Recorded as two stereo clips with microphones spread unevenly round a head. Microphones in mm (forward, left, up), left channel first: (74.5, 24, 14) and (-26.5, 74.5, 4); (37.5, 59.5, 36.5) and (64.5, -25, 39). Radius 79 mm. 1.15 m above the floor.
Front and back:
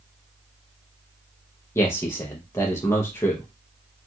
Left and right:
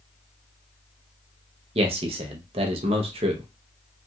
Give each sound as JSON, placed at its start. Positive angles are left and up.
{"t": 1.8, "sound": "a man speaking", "azimuth_deg": -100, "distance_m": 0.6}